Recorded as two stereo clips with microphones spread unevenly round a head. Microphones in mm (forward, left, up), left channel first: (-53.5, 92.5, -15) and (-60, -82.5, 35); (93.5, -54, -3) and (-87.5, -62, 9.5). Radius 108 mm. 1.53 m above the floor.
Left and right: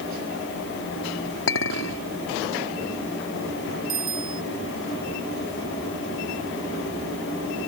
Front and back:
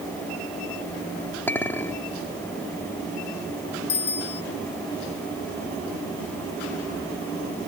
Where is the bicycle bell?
25° right.